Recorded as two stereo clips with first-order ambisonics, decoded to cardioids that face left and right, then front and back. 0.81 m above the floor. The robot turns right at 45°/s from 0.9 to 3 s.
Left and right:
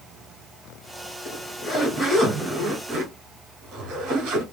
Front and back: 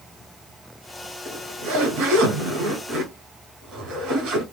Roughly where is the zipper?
Behind left.